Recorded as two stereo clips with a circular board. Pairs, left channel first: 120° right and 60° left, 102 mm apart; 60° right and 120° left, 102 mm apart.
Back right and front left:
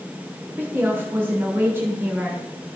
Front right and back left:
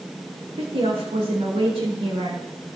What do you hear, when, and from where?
0.6 s a woman speaking: 125° left, 3.5 m